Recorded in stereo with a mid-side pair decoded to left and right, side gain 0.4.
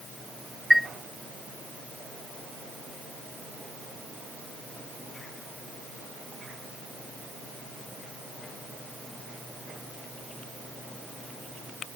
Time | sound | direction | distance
0.7 | a chime | 5° left | ?